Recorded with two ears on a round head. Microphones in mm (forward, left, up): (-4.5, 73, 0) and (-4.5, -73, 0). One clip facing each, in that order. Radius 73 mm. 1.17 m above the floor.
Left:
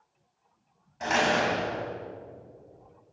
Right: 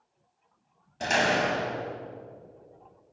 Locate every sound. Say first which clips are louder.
1.0 s a door slam: even; 40° right (ahead or behind), 5 m